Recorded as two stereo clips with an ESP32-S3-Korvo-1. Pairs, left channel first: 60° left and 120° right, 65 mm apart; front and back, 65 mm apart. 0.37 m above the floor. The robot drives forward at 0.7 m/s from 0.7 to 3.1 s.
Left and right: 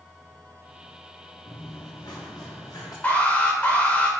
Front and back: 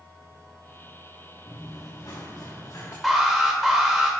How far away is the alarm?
About 1.2 m.